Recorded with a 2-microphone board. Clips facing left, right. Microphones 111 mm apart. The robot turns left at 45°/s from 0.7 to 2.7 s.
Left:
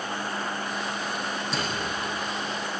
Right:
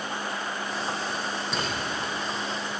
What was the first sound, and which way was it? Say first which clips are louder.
A microwave: even; centre (ahead or behind).